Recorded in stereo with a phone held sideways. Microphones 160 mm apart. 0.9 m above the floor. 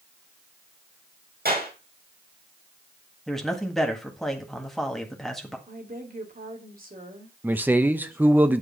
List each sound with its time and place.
1.4 s a clap: 80° right, 4.5 m
3.3 s a man speaking: centre (ahead or behind), 1.7 m
5.7 s a woman speaking: 65° right (ahead or behind), 2.5 m
7.4 s a man speaking: 10° right (ahead or behind), 0.6 m